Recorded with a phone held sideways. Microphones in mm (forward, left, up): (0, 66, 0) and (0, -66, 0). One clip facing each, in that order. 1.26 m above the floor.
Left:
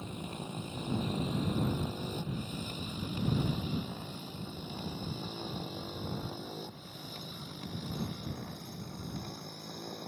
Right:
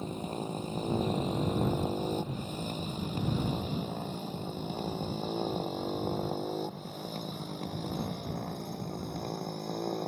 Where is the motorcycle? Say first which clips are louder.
Right 6 dB; 35° right (ahead or behind); by 10.1 s 50° right (ahead or behind).